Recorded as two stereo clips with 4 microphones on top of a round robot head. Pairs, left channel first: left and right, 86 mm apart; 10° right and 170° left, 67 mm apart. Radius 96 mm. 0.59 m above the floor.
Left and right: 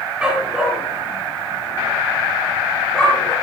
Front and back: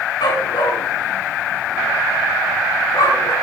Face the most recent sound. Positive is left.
turn(degrees=10)